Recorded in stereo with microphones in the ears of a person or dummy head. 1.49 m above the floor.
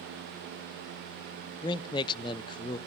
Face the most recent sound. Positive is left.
turn(degrees=25)  # may be behind; listen again after turning